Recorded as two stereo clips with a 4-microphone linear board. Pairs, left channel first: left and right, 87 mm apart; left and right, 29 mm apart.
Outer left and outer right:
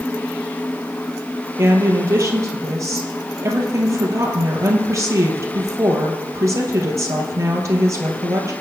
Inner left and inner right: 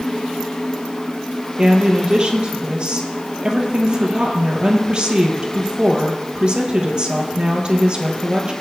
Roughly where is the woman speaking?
Right.